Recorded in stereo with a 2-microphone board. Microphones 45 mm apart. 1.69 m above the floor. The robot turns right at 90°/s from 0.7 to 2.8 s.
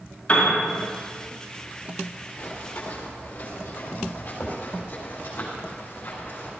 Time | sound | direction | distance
0.3 | a piano | 25° left (ahead or behind) | 5 m
2.4 | running footsteps | 45° left (ahead or behind) | 3 m